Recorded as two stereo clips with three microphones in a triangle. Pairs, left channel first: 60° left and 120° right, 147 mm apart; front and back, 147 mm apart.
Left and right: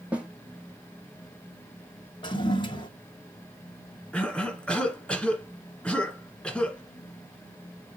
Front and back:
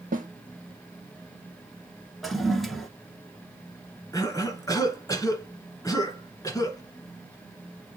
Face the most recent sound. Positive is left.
turn(degrees=-15)